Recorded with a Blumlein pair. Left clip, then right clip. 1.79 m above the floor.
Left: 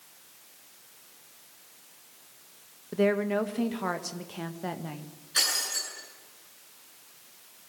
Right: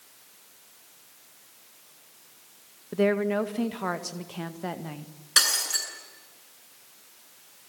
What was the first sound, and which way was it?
A woman speaking, 5° right.